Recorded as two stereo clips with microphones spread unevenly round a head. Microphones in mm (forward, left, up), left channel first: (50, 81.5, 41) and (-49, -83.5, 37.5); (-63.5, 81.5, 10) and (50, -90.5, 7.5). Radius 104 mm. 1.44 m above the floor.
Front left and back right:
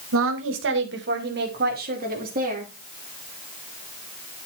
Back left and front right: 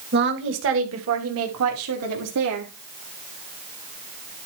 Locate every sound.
0.1 s a woman speaking: 100° right, 1.8 m; by 2.7 s 70° right, 3.5 m